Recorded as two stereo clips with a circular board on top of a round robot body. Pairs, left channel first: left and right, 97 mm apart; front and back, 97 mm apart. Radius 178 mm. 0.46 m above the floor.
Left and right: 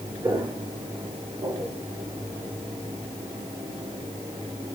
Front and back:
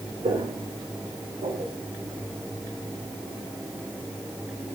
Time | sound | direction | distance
0.2 | footsteps | 150° right | 4.5 m